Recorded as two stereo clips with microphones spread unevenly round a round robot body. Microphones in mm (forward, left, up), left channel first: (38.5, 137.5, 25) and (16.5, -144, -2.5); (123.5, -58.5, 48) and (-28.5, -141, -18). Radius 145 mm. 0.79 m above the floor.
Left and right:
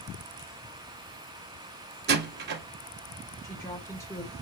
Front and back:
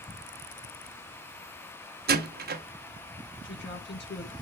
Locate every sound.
2.1 s a door slam: 150° right, 1.2 m
3.4 s a woman speaking: 5° left, 2.5 m